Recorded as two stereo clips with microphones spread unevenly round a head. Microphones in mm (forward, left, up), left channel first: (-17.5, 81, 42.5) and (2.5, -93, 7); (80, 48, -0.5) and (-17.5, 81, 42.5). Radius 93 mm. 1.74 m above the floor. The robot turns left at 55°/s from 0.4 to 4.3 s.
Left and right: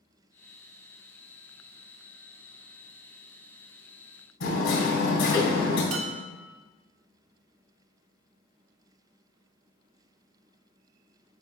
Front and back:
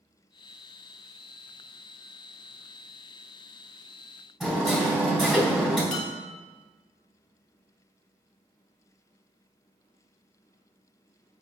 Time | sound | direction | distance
4.4 | hammering | 80° left | 3.5 m
5.9 | dishes clattering | 70° right | 0.9 m